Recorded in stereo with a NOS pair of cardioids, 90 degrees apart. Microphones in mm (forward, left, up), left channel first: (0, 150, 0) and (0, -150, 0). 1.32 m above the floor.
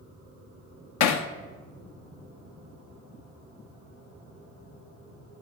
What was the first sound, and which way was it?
Hammering, 65° left.